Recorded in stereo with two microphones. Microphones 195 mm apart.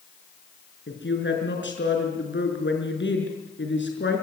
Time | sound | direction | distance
0.9 | a woman speaking | 80° left | 6 m